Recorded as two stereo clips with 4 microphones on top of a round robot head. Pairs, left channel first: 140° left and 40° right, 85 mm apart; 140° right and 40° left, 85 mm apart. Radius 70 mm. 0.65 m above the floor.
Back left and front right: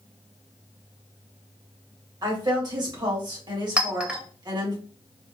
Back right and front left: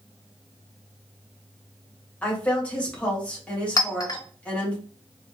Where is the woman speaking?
65° right, 1.6 m.